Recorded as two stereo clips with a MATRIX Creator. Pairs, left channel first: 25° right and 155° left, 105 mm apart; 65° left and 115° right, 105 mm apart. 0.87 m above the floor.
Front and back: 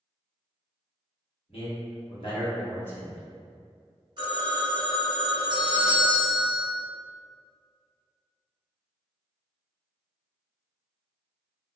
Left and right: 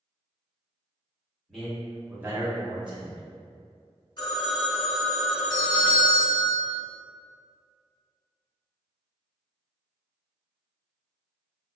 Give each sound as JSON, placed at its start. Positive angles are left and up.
{"t": 1.5, "sound": "a man speaking", "azimuth_deg": -20, "distance_m": 1.2}
{"t": 4.2, "sound": "a phone ringing", "azimuth_deg": 115, "distance_m": 0.8}
{"t": 5.5, "sound": "a doorbell", "azimuth_deg": 140, "distance_m": 1.1}